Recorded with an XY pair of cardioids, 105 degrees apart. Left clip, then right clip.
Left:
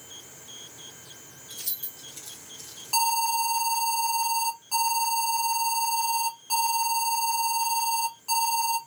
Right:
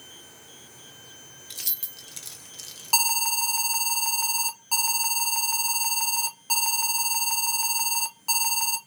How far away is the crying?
No crying in this recording.